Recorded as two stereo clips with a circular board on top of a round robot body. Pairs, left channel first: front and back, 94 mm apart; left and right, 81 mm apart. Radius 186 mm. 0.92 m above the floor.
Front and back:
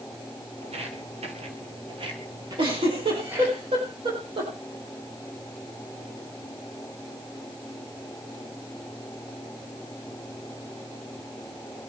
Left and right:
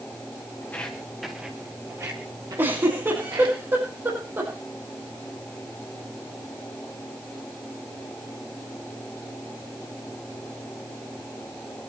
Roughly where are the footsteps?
Behind.